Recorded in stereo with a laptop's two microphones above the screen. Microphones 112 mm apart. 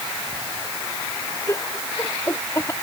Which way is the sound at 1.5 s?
25° left (ahead or behind).